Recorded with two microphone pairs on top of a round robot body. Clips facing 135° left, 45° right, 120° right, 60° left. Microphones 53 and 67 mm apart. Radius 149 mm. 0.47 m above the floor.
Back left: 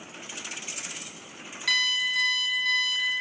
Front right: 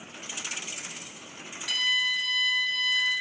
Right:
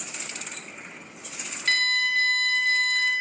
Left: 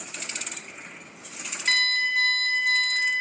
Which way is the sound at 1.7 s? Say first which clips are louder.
Back left 1 dB, even; 140° left.